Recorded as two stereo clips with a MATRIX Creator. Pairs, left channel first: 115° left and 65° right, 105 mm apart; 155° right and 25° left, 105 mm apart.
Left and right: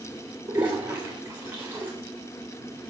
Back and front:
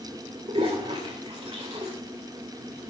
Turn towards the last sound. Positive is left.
turn(degrees=5)